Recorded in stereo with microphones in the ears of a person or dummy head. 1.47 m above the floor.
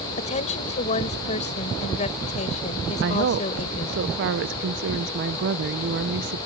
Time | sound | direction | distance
0.2 | a woman speaking | 40° left (ahead or behind) | ?
3.0 | a woman speaking | 65° right (ahead or behind) | ?